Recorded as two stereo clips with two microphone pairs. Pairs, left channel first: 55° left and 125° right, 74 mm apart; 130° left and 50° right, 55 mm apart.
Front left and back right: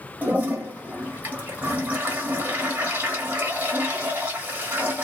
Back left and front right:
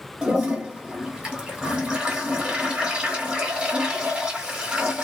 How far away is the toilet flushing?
About 1.2 m.